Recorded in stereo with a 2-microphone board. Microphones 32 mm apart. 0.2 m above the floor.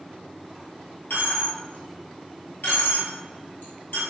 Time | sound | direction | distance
1.1 | a dropped coin | 75° left (ahead or behind) | 1.3 m